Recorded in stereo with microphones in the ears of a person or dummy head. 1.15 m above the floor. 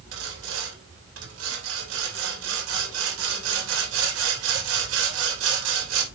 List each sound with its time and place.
0.1 s sawing: 85° right, 3 m